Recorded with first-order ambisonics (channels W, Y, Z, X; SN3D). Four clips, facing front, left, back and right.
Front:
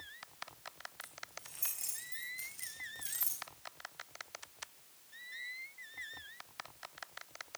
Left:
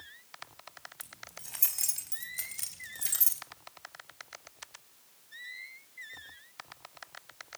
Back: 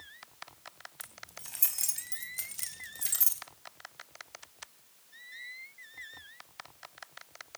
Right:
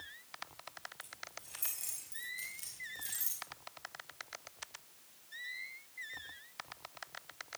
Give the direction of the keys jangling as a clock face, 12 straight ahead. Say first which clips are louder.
Left 1 dB, back 3 dB; 7 o'clock.